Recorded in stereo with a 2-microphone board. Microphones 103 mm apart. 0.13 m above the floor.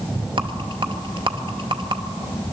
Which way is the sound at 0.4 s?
55° right (ahead or behind).